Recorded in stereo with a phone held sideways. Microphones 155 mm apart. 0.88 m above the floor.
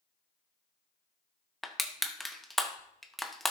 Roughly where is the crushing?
Centre.